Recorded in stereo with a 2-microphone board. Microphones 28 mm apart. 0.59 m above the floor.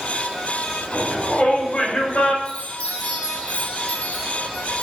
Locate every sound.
0.9 s a shout: 35° left (ahead or behind), 4 m; by 2.4 s 40° left (ahead or behind), 2.5 m
2.5 s a chime: 35° left (ahead or behind), 3 m